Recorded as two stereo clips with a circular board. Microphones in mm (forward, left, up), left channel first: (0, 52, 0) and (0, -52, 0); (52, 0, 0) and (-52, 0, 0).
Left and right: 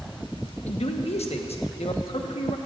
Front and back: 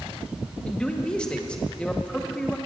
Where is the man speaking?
80° left, 1.1 m.